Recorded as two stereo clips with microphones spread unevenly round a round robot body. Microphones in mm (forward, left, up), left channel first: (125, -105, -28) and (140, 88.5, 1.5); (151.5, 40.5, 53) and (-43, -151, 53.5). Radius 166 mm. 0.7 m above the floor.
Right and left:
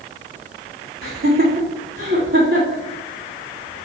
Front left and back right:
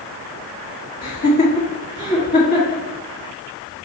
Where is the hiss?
I don't hear a hiss.